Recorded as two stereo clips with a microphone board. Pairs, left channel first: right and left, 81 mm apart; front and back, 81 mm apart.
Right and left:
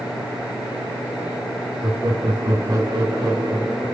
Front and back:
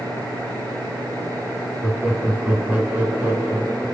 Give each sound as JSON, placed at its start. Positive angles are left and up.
{"t": 1.8, "sound": "laughter", "azimuth_deg": 100, "distance_m": 2.5}